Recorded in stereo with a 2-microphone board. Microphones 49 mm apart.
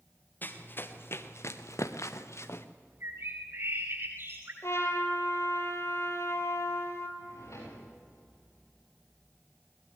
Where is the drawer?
70° left (ahead or behind), 9.5 m.